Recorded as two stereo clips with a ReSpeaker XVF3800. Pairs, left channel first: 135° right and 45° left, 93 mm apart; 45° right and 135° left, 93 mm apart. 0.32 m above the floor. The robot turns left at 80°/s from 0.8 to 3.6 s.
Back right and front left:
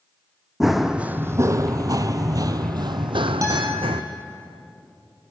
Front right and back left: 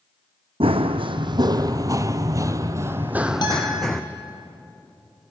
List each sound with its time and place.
0.6 s running footsteps: 130° left, 1.2 m; by 4.0 s 40° left, 1.3 m
3.4 s a guitar: 5° right, 4 m; by 3.8 s 20° right, 4 m